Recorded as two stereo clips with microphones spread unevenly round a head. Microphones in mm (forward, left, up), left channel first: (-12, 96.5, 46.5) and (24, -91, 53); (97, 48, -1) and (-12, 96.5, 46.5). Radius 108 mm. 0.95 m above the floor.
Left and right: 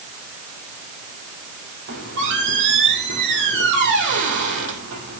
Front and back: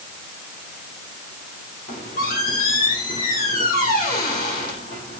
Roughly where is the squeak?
Ahead right.